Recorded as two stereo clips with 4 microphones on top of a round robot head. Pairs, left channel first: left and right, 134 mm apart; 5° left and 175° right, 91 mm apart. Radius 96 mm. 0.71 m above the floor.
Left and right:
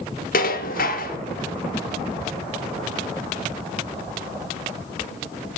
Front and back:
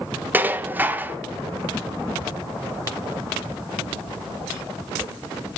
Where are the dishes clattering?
110° left, 0.9 m.